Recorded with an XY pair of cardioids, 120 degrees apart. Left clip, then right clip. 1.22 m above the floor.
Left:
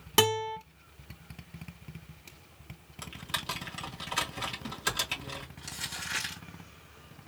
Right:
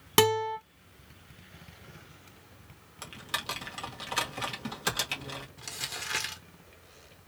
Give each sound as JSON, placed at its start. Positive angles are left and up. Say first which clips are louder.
{"t": 0.2, "sound": "a guitar", "louder": "right 2 dB", "azimuth_deg": -20, "distance_m": 2.5}
{"t": 3.0, "sound": "typing on a keyboard", "louder": "right 1 dB", "azimuth_deg": -10, "distance_m": 1.7}
{"t": 5.6, "sound": "crumpling", "louder": "right 2 dB", "azimuth_deg": -25, "distance_m": 1.8}